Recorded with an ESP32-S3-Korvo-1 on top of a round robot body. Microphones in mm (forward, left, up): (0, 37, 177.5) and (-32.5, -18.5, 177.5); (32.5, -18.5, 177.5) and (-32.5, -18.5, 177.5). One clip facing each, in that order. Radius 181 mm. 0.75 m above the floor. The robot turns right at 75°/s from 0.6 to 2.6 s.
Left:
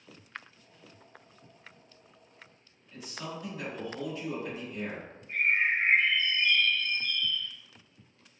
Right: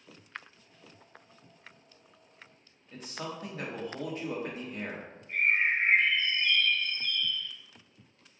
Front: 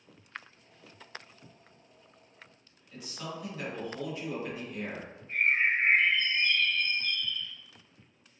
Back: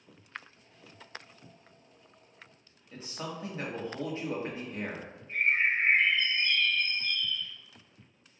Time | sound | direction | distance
2.9 | a man speaking | 135° right | 1.4 m
5.3 | a bird | 30° right | 1.5 m